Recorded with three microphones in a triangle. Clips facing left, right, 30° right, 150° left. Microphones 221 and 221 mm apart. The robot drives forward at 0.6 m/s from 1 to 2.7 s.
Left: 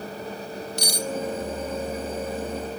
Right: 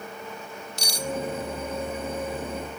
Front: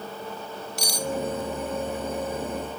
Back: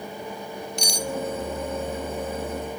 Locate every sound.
0.8 s cutlery clinking: 55° left, 1.5 m